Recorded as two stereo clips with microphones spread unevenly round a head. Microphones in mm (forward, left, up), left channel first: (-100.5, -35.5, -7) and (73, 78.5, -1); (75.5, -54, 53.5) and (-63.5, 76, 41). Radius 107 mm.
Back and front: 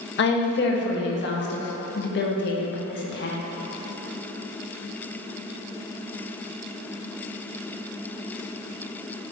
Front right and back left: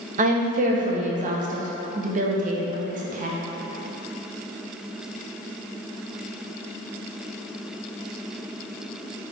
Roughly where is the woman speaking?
Behind.